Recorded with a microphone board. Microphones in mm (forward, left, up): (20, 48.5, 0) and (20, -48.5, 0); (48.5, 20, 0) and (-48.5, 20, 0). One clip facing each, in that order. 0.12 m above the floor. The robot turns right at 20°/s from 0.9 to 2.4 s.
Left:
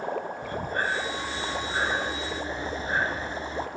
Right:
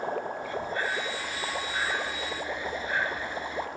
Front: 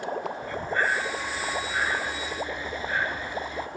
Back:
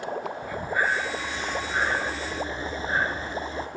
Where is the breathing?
105° left, 0.8 m; by 3.7 s 135° left, 0.8 m.